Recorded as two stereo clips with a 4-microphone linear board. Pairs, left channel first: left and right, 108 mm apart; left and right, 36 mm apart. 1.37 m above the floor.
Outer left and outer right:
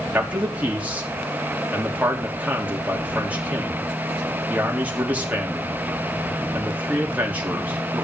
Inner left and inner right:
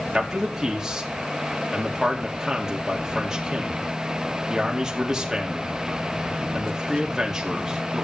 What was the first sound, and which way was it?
A man speaking, 15° right (ahead or behind).